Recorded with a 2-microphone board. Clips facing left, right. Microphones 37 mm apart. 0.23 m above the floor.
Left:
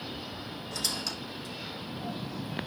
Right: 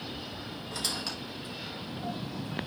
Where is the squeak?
35° right (ahead or behind), 3.5 m.